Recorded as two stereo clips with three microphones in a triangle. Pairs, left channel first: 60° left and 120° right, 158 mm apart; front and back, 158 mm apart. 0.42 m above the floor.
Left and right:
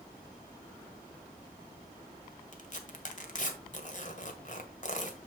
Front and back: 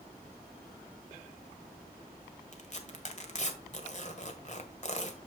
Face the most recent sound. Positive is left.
turn(degrees=35)